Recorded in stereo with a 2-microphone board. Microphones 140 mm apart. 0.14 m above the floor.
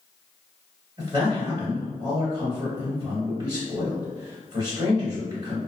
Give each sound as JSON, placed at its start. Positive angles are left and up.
{"t": 1.0, "sound": "a man speaking", "side_deg": -25, "distance_m": 1.8}